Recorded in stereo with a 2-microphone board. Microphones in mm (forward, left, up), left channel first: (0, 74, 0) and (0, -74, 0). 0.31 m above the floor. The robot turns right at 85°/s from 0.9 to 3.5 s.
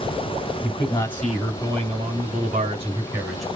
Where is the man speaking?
145° left, 2 m; by 3.5 s 5° left, 2 m.